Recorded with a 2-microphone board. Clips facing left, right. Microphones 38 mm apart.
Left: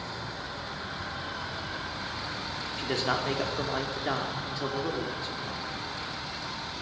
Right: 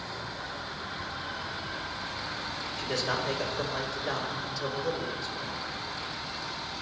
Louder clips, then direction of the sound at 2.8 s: Left 2 dB; 35° left (ahead or behind).